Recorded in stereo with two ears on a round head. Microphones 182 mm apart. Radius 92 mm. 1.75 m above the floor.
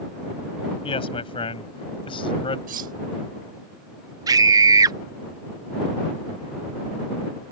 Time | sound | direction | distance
0.8 | a man speaking | 25° left (ahead or behind) | ?
2.7 | cutlery clinking | 40° right (ahead or behind) | ?
4.3 | a scream | 15° right (ahead or behind) | ?